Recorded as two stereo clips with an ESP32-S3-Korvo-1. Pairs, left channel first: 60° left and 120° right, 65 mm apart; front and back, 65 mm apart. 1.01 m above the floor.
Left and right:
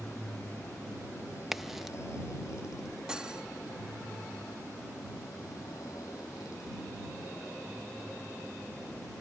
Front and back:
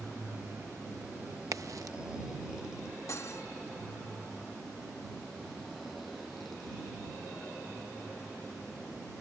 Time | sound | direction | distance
0.0 | a motorcycle | 120° left | ?
1.5 | a crack | 155° left | ?
3.1 | cutlery clinking | 45° right | ?